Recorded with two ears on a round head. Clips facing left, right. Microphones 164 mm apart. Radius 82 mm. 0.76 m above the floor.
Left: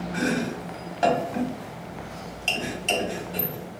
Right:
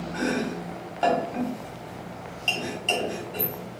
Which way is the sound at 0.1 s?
15° left (ahead or behind).